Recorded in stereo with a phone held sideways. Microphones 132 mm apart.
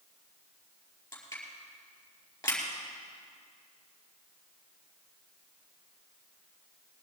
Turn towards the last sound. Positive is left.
turn(degrees=25)  # may be behind; listen again after turning